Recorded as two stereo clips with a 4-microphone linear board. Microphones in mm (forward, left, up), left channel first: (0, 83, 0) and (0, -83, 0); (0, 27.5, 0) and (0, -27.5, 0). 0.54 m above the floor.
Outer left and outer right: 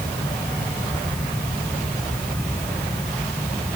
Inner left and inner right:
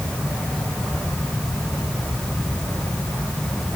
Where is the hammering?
No hammering in this recording.